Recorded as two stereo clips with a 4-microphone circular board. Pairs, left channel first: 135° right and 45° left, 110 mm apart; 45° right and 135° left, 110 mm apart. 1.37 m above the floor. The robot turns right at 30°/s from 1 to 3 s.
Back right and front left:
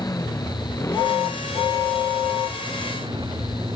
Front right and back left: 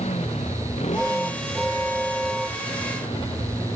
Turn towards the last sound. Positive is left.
turn(degrees=-5)